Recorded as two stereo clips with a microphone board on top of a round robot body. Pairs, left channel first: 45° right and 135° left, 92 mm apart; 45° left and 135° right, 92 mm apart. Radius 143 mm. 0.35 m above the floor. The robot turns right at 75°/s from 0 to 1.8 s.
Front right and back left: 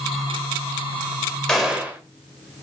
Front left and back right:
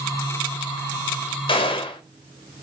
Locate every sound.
1.5 s a gunshot: 35° left, 1.3 m; by 2.0 s 60° left, 1.3 m